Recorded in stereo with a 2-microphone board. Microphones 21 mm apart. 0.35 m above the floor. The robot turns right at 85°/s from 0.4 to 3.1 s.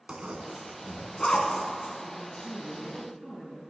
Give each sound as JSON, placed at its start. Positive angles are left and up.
{"t": 0.1, "sound": "a zipper", "side_deg": -55, "distance_m": 1.3}
{"t": 2.0, "sound": "a woman speaking", "azimuth_deg": 85, "distance_m": 3.5}